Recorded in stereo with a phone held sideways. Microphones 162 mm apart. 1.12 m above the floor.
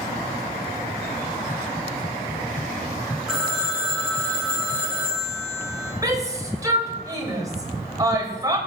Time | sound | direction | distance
3.3 | a phone ringing | 5° right (ahead or behind) | 5 m
6.0 | a shout | 20° right (ahead or behind) | 5 m